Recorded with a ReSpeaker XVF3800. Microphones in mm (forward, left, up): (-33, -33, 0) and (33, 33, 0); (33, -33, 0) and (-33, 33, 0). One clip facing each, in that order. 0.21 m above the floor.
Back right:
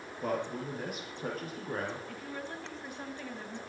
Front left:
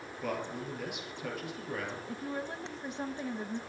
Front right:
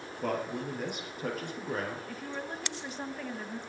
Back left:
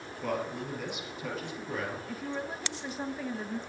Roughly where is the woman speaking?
Ahead left.